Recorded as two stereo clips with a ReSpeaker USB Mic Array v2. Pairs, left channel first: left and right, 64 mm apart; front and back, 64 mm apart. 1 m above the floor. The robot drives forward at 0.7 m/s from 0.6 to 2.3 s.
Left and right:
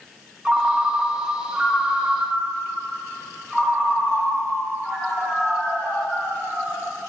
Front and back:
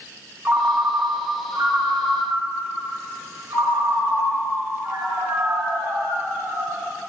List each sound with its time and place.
0.5 s a ringtone: 155° right, 0.6 m; by 6.8 s 175° right, 1.6 m